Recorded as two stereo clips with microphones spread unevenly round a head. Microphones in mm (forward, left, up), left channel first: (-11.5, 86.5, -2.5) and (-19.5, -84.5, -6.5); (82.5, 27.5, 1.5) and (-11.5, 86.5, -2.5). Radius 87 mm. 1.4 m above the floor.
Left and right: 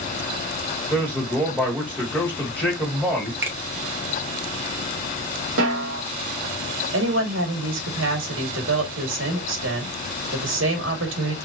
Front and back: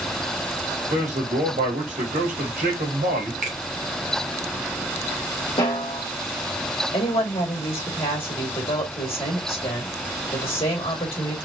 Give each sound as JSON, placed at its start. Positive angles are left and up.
{"t": 0.9, "sound": "a man speaking", "azimuth_deg": 180, "distance_m": 2.5}
{"t": 3.4, "sound": "a finger snap", "azimuth_deg": -170, "distance_m": 1.6}
{"t": 5.6, "sound": "a snare drum", "azimuth_deg": -95, "distance_m": 2.5}
{"t": 6.9, "sound": "a woman speaking", "azimuth_deg": -90, "distance_m": 2.5}